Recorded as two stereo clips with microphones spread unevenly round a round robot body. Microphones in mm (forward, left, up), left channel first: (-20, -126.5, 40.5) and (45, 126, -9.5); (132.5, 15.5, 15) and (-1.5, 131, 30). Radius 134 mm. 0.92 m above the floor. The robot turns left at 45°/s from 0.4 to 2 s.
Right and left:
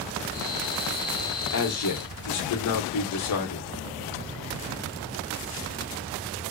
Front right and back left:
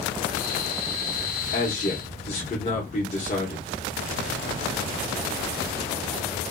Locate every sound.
1.5 s a man speaking: 65° right, 0.8 m; by 3.7 s 90° right, 0.8 m